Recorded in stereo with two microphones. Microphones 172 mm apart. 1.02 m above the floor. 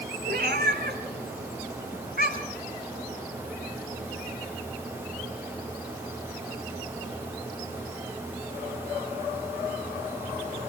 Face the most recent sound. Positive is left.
turn(degrees=-60)  # may be behind; listen again after turning